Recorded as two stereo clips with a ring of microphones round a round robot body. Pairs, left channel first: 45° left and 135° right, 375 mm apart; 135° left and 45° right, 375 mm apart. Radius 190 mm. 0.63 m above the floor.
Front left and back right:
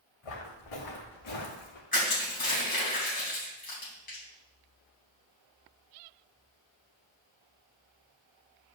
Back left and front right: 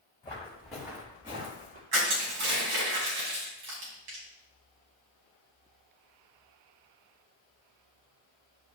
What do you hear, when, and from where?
0.2 s footsteps: 55° left, 3 m; by 1.8 s 20° left, 3 m
1.9 s crushing: 20° right, 4 m